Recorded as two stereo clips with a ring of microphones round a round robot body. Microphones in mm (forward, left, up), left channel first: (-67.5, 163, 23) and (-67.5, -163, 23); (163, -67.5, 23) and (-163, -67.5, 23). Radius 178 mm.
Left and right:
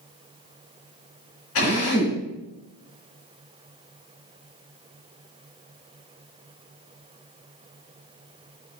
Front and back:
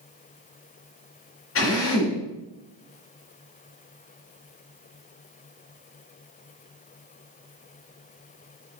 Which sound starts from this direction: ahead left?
A drill, at 1.6 s.